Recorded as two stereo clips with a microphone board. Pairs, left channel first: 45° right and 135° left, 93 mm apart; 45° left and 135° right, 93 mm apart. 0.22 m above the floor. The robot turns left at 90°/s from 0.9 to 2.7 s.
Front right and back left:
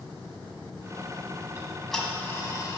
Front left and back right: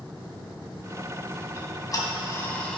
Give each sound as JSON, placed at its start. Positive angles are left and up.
{"t": 1.6, "sound": "ticking", "azimuth_deg": 75, "distance_m": 1.4}